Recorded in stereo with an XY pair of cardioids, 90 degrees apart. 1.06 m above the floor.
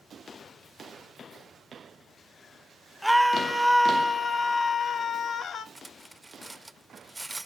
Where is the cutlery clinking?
10° right, 0.6 m.